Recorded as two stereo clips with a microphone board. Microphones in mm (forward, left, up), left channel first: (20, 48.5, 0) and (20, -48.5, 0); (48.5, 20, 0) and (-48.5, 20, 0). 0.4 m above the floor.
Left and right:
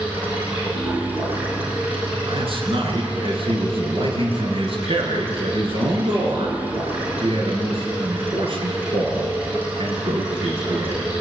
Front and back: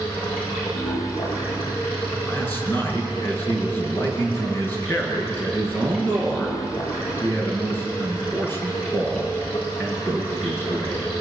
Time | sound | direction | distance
0.0 | running water | 20° right | 9 m
2.2 | a man speaking | 70° right | 6 m